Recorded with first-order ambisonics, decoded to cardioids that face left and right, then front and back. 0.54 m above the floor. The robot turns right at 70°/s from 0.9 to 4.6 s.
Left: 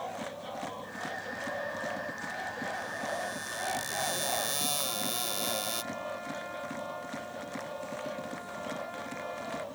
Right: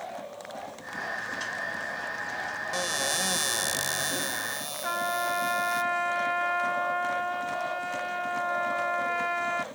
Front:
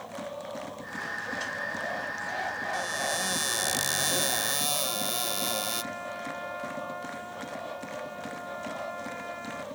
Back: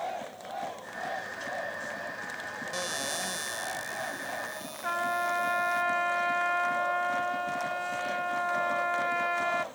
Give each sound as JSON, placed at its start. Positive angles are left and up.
{"t": 2.7, "sound": "a cupboard door", "azimuth_deg": -110}
{"t": 4.8, "sound": "a trumpet", "azimuth_deg": -130}